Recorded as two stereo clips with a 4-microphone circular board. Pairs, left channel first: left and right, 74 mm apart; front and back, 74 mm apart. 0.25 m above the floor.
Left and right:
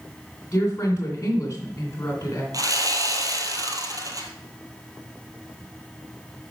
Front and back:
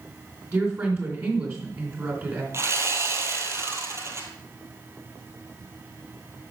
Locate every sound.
0.5 s a woman speaking: 140° left, 3 m
2.5 s sawing: 125° right, 1.4 m